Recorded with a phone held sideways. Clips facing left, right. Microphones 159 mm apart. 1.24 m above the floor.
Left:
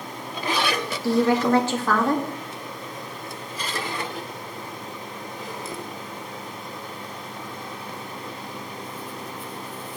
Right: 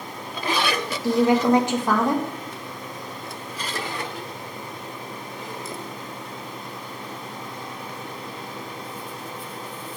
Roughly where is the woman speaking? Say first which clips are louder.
Right 2 dB; centre.